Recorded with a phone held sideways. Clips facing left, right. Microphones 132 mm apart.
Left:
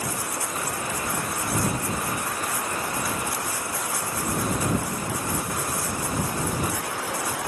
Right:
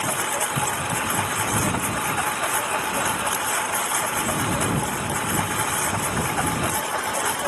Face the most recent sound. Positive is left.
turn(degrees=-75)  # may be behind; listen again after turning